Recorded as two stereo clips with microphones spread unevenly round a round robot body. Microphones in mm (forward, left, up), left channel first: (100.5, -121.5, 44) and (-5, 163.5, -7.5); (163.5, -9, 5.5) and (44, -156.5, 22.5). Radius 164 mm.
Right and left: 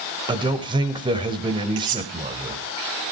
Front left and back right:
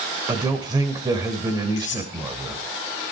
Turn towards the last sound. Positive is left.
turn(degrees=105)